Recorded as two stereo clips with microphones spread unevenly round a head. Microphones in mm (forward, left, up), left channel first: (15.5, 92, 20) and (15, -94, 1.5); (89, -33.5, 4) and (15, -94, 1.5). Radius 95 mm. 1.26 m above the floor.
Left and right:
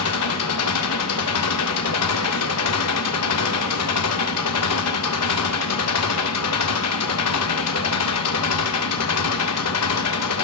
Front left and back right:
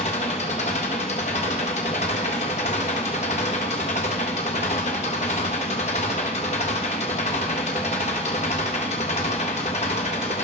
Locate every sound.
0.0 s an engine running: 85° left, 1.6 m